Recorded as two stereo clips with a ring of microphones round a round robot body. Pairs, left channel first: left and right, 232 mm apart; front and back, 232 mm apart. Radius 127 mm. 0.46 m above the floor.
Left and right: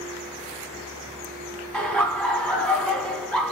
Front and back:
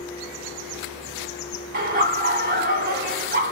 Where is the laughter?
175° left, 1.5 m.